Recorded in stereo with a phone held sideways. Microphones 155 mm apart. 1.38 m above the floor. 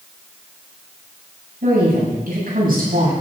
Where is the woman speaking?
65° right (ahead or behind), 9 m.